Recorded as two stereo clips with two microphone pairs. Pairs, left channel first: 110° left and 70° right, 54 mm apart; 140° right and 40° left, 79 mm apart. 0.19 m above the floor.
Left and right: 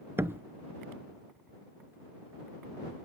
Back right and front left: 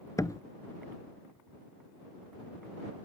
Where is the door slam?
100° right.